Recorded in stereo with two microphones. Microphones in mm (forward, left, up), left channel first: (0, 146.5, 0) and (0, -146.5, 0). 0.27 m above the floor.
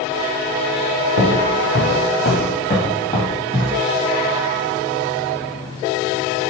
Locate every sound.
1.2 s footsteps: 70° left (ahead or behind), 1.5 m; by 3.8 s 10° left (ahead or behind), 3 m